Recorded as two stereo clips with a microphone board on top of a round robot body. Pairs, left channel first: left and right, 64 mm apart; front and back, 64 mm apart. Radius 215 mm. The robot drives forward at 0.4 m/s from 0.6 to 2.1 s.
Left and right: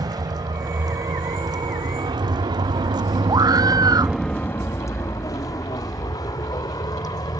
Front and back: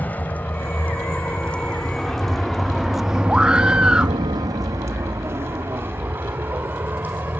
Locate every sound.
0.0 s a vehicle: 65° right; by 7.4 s 115° left
3.3 s a scream: 100° right